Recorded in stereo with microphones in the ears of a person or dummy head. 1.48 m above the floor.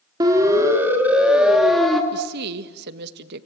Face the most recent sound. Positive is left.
turn(degrees=-55)  # may be behind; listen again after turning